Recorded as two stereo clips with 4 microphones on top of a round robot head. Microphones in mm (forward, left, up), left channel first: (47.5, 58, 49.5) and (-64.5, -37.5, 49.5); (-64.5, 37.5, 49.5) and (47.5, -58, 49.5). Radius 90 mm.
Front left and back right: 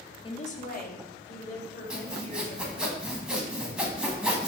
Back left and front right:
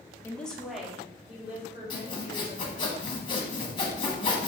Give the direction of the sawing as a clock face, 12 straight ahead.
7 o'clock.